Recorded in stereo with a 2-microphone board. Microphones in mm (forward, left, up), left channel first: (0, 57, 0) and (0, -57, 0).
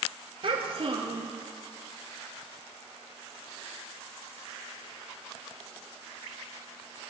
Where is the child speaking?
55° right (ahead or behind), 1.7 m.